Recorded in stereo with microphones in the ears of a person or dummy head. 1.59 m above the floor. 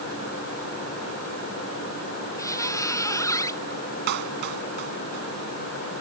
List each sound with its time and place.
2.4 s a squeak: 20° left (ahead or behind)
4.1 s a clap: 55° right (ahead or behind)